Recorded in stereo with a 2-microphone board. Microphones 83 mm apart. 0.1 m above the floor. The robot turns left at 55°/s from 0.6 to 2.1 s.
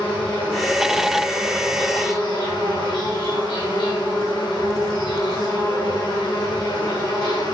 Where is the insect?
160° left, 4 m; by 7.5 s 75° left, 4 m.